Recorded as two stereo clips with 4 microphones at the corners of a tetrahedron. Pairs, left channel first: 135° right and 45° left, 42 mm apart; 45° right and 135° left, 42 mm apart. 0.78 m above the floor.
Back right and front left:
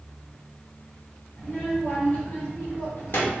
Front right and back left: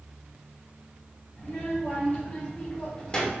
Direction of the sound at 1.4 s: 90° right.